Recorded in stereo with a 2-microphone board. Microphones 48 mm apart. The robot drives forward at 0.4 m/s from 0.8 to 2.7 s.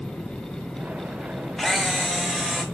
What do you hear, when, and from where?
1.6 s a camera shutter: centre (ahead or behind), 0.5 m